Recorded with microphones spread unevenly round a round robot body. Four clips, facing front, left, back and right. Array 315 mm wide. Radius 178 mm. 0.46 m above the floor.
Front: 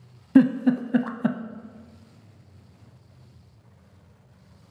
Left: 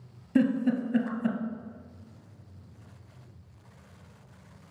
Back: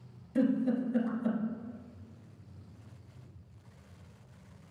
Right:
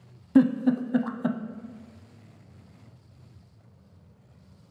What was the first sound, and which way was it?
A giggle, 5° right.